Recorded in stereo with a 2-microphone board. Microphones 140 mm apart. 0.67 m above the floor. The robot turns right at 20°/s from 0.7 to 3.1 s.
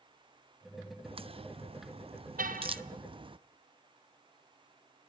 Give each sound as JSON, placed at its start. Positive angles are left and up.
{"t": 1.1, "sound": "a crack", "side_deg": -40, "distance_m": 0.6}
{"t": 2.4, "sound": "a car horn", "side_deg": -85, "distance_m": 3.0}